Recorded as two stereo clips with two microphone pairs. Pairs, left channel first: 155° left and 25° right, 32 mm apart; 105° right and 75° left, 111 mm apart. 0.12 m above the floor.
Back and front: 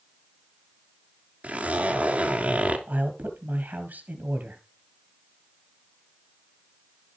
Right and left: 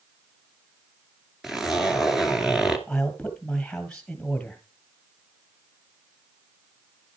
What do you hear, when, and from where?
1.4 s a zipper: 10° right, 1.8 m
2.9 s a man speaking: 25° right, 2 m